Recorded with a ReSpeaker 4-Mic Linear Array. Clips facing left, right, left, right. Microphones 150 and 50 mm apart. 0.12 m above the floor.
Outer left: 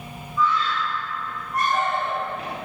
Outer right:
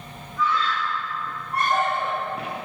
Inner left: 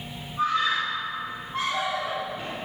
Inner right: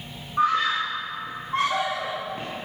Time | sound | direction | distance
0.4 | a scream | 55° right (ahead or behind) | 8.5 m